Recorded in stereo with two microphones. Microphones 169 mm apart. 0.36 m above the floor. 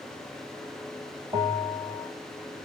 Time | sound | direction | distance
1.3 | a bell | 20° right (ahead or behind) | 1.6 m